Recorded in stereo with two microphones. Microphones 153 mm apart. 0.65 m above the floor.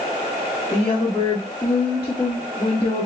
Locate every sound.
0.7 s a woman speaking: 20° left (ahead or behind), 1.3 m